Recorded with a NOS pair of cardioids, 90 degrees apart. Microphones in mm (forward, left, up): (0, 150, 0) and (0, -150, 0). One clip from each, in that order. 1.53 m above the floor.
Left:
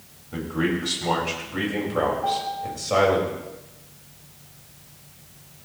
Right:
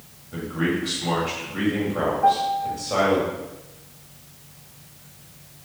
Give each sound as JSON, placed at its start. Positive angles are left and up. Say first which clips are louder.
{"t": 0.3, "sound": "a man speaking", "louder": "even", "azimuth_deg": 25, "distance_m": 7.5}
{"t": 2.2, "sound": "a piano", "louder": "right 6 dB", "azimuth_deg": -40, "distance_m": 3.5}